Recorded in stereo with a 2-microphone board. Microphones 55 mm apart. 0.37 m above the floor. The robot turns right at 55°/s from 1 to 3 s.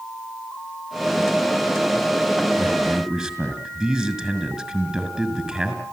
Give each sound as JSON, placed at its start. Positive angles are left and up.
{"t": 2.6, "sound": "a man speaking", "side_deg": -30, "distance_m": 5.5}